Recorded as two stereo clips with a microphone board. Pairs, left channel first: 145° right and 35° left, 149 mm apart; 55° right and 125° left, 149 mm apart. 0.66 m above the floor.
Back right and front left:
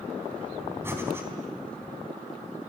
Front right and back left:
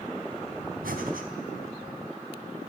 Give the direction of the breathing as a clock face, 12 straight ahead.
8 o'clock.